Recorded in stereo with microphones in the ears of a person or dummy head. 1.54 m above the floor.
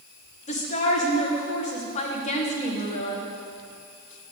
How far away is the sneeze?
No sneeze in this recording.